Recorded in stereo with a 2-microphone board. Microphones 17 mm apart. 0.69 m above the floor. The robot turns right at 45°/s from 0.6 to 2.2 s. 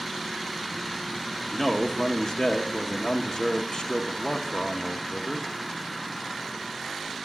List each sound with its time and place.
1.5 s a man speaking: 50° left, 0.9 m; by 5.5 s 80° left, 0.9 m